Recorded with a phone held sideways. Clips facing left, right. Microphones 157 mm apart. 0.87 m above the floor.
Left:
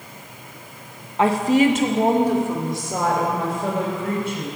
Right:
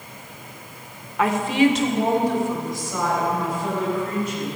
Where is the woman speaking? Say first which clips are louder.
Left 2 dB; 25° left (ahead or behind), 0.9 m; by 4.5 s 70° left (ahead or behind), 4.5 m.